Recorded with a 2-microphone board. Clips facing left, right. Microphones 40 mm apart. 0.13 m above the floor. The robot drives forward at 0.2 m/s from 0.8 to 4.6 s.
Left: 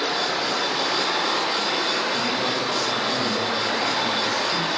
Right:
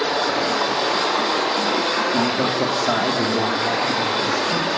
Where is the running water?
50° right (ahead or behind), 4.5 m; by 4.8 s 40° right (ahead or behind), 5 m.